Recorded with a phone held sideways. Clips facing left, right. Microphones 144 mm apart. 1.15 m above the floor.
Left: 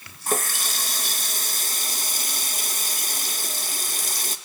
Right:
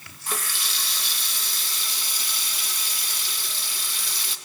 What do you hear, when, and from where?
0.3 s a running tap: 45° left (ahead or behind), 0.6 m